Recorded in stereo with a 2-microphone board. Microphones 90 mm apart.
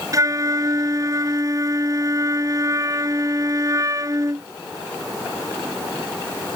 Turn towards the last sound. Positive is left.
turn(degrees=-35)  # may be behind; listen again after turning